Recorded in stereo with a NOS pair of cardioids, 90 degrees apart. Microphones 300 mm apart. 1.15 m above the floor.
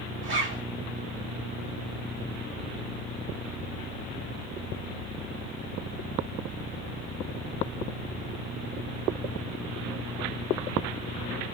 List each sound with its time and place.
0.2 s a zipper: 40° right, 1.6 m